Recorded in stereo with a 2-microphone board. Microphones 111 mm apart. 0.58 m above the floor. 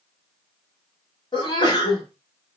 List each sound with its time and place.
1.3 s a sneeze: 40° left (ahead or behind), 1.4 m